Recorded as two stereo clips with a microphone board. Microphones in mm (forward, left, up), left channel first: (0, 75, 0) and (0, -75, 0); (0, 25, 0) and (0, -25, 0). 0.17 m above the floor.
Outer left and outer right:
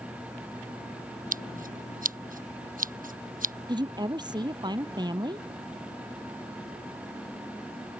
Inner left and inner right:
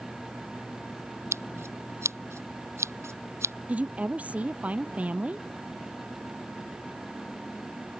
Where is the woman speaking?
30° right (ahead or behind).